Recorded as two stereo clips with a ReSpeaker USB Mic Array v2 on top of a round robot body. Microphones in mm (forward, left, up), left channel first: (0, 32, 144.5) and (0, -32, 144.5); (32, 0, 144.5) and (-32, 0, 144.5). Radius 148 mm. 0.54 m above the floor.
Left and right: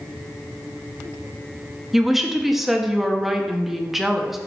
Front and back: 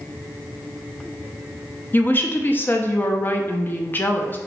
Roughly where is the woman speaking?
Ahead.